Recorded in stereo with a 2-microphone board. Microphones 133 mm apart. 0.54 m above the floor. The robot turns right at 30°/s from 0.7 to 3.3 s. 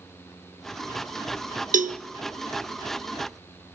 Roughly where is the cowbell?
Right.